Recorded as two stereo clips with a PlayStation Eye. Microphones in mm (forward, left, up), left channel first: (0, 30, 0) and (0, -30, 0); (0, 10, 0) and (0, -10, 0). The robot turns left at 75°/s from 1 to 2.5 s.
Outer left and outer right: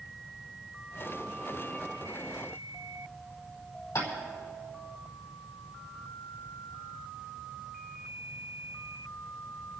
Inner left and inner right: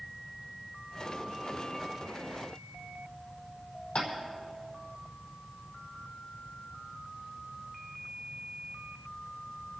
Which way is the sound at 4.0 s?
60° left (ahead or behind).